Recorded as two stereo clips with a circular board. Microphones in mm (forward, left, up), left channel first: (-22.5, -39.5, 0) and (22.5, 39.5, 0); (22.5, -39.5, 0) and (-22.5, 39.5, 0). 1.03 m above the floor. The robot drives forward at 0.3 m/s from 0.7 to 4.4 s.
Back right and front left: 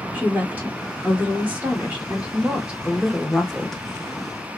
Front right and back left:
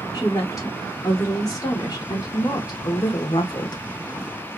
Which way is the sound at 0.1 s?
10° right.